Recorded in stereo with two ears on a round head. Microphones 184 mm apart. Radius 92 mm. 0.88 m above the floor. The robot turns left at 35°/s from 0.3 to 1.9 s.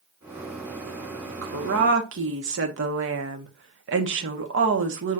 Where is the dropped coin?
No dropped coin in this recording.